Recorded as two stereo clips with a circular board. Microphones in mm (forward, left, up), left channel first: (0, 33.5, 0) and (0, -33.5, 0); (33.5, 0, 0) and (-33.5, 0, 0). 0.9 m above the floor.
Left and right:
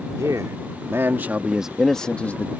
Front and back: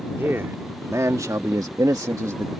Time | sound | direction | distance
0.2 | a man speaking | 125° right | ?